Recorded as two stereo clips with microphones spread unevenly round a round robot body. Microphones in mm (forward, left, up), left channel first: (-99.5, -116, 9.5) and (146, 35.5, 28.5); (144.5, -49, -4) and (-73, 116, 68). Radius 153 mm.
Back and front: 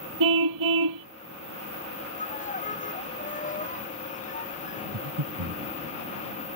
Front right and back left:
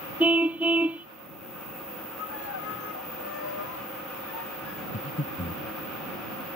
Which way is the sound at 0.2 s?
60° left.